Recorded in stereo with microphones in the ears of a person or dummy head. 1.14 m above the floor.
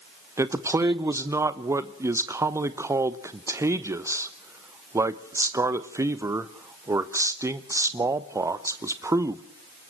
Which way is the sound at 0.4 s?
15° right (ahead or behind).